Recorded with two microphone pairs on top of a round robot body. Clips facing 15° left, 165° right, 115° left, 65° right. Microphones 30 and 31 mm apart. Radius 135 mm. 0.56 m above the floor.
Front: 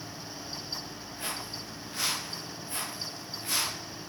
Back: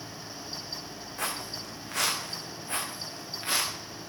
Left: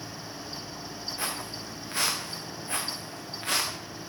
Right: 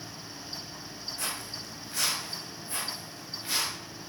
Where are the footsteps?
Straight behind, 1.8 m; by 3.7 s 140° left, 2.5 m.